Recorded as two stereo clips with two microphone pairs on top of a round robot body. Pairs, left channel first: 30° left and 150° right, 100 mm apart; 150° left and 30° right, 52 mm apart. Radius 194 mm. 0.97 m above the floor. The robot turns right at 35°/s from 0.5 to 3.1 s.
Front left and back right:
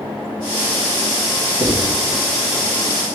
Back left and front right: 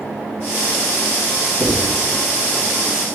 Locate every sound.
1.6 s writing: 40° right, 3.5 m; by 1.9 s 30° right, 3.5 m